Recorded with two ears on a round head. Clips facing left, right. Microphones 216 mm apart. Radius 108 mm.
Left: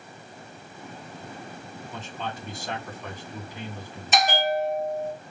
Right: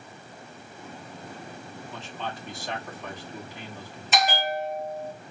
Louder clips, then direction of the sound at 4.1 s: Left 3 dB; 40° left (ahead or behind).